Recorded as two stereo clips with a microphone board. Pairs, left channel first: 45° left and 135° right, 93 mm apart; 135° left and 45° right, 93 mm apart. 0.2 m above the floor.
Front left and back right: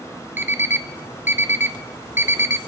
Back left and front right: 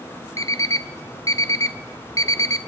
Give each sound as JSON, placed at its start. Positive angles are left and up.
{"t": 0.4, "sound": "an alarm clock", "azimuth_deg": 170, "distance_m": 0.6}